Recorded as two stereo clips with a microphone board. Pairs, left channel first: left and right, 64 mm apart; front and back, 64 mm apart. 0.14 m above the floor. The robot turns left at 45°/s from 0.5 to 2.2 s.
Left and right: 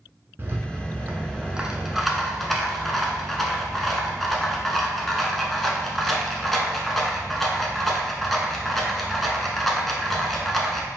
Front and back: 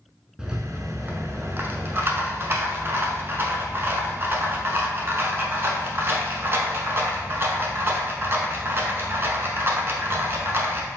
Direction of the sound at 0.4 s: 110° right.